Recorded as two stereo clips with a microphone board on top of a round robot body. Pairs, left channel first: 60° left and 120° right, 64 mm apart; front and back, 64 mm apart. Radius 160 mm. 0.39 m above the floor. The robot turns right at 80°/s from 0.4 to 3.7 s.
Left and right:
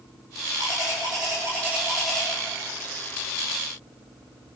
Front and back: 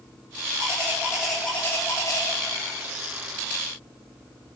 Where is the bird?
150° right, 8.5 m; by 2.3 s 15° right, 8.5 m.